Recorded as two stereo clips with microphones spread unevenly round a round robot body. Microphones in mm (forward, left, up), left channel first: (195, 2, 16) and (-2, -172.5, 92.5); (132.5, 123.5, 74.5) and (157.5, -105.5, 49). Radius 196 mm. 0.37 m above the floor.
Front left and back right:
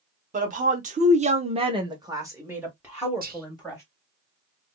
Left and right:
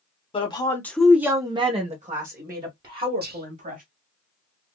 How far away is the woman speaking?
About 0.9 m.